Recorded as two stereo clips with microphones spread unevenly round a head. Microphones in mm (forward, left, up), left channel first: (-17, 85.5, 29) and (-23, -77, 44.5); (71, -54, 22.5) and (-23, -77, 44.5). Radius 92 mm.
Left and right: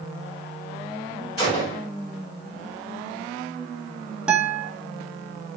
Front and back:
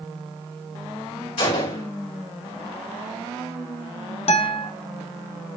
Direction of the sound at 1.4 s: 25° left.